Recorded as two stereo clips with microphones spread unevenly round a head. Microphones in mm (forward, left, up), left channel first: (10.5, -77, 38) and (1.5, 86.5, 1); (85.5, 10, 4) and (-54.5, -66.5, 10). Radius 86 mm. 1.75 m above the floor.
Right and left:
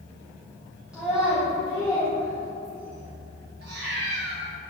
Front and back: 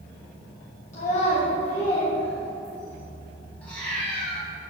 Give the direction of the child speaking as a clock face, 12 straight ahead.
12 o'clock.